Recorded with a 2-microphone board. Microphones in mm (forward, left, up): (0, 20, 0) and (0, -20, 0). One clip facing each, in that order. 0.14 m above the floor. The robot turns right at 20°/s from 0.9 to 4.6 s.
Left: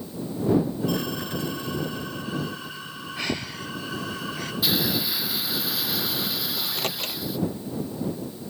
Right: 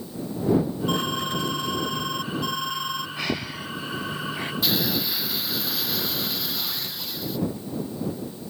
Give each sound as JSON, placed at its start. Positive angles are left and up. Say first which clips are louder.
{"t": 0.9, "sound": "an alarm", "louder": "right 3 dB", "azimuth_deg": -130}
{"t": 3.2, "sound": "breathing", "louder": "right 1 dB", "side_deg": -5}
{"t": 4.6, "sound": "a hiss", "louder": "left 1 dB", "side_deg": 5}
{"t": 6.6, "sound": "a microwave", "louder": "left 3 dB", "side_deg": 70}